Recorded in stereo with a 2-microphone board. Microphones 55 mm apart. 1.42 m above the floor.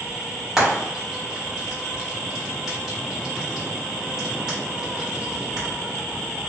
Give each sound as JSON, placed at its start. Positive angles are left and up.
{"t": 0.6, "sound": "frying", "side_deg": -5, "distance_m": 1.4}